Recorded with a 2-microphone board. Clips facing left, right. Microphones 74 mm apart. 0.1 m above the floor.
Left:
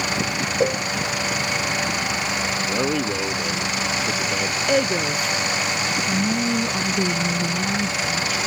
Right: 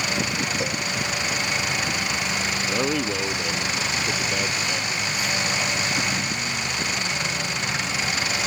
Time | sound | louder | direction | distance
0.6 | a cowbell | left 7 dB | 35° left (ahead or behind) | ?
2.7 | a man speaking | left 1 dB | 5° left (ahead or behind) | ?
4.7 | a woman speaking | left 7 dB | 55° left (ahead or behind) | ?
6.1 | a woman speaking | left 6 dB | 70° left (ahead or behind) | ?